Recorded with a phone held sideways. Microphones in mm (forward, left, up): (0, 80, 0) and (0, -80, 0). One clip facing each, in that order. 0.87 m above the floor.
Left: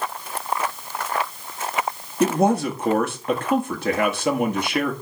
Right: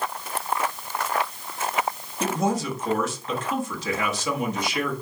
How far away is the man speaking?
About 1.5 m.